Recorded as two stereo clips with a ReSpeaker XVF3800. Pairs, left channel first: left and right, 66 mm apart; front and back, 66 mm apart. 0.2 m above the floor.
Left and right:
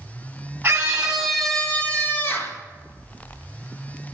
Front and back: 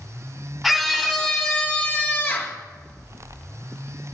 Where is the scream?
90° right, 1.1 m; by 2.6 s 50° left, 1.6 m.